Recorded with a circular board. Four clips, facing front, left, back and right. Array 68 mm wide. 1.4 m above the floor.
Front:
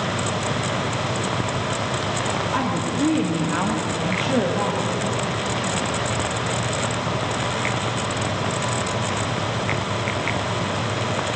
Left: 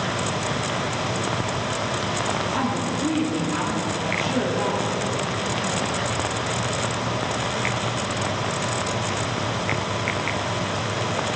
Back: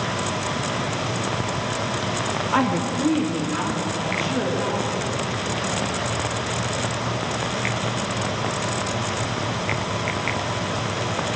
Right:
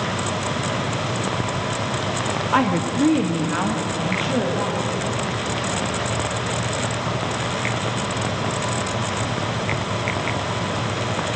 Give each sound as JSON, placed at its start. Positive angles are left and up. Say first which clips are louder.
{"t": 2.5, "sound": "a woman speaking", "louder": "right 5 dB, back 2 dB", "azimuth_deg": -115, "distance_m": 1.3}